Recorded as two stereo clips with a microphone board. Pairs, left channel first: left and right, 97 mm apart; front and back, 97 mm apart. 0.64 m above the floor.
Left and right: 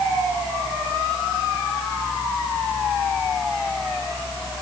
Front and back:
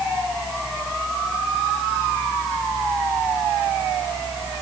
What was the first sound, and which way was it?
Only background noise.